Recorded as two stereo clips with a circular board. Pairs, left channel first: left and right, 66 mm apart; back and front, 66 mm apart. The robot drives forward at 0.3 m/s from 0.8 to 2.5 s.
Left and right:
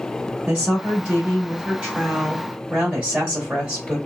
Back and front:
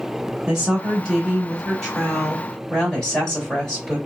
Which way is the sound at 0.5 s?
70° right.